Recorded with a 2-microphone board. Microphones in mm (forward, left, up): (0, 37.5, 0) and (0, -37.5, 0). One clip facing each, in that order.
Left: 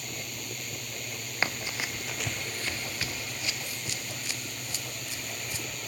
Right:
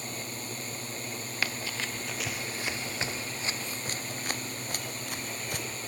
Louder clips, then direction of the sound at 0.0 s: Right 2 dB; 35° right (ahead or behind).